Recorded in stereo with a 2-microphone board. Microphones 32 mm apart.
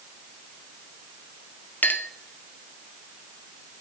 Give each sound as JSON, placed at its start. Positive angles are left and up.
{"t": 1.8, "sound": "a clink", "side_deg": 75, "distance_m": 1.4}